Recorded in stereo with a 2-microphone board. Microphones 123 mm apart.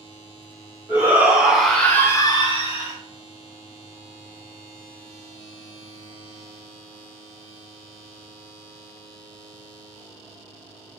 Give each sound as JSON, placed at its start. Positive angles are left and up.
{"t": 0.9, "sound": "a shout", "side_deg": -15, "distance_m": 1.6}